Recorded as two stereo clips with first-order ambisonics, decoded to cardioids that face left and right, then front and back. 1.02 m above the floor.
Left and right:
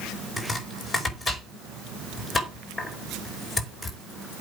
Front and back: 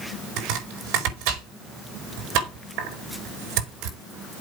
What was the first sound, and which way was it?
Chopping, 160° left.